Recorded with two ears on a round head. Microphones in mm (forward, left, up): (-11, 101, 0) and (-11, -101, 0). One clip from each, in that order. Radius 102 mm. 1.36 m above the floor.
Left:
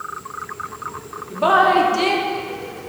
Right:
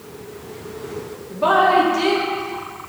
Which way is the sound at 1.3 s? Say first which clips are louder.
Even; 25° left (ahead or behind).